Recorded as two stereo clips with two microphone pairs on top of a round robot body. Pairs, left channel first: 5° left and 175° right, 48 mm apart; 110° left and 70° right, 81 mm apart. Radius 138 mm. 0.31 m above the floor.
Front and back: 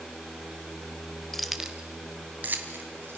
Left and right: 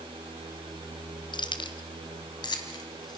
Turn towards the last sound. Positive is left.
turn(degrees=145)